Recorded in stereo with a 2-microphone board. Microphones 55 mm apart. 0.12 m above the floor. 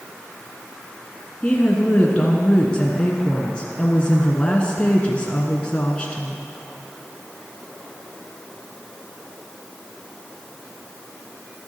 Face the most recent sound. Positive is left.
turn(degrees=20)  # may be behind; listen again after turning